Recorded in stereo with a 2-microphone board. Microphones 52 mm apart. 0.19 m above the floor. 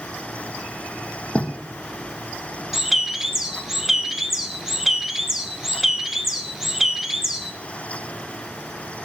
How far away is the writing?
About 1.9 m.